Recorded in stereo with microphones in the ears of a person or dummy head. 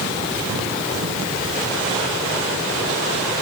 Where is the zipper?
No zipper in this recording.